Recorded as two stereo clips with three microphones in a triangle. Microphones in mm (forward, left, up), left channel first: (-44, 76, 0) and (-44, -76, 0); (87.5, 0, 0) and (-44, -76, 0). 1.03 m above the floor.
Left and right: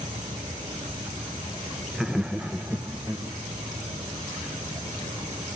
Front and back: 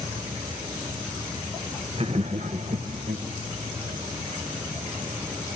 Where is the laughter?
Straight behind, 0.6 m; by 3.3 s 170° right, 1.3 m.